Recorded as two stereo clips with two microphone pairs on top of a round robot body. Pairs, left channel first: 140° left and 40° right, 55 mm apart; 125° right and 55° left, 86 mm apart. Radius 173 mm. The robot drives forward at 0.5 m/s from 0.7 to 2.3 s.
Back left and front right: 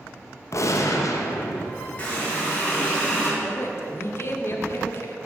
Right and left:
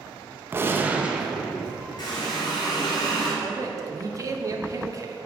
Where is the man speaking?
105° left, 0.8 m.